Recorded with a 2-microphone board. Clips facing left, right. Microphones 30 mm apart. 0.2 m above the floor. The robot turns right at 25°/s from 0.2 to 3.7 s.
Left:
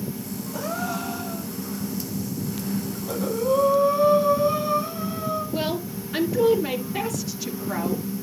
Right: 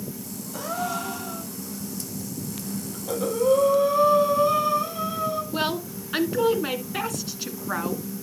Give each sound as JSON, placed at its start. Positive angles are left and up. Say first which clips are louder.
{"t": 0.5, "sound": "a gasp", "louder": "even", "side_deg": -5, "distance_m": 5.5}
{"t": 2.9, "sound": "breathing", "louder": "right 5 dB", "side_deg": -50, "distance_m": 7.5}
{"t": 5.5, "sound": "a woman speaking", "louder": "even", "side_deg": -50, "distance_m": 1.8}